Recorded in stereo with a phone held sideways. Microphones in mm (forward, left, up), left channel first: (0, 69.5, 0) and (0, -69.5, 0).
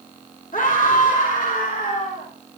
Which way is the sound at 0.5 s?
75° left (ahead or behind).